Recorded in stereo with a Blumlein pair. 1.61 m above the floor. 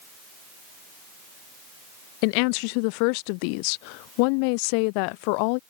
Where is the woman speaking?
45° left.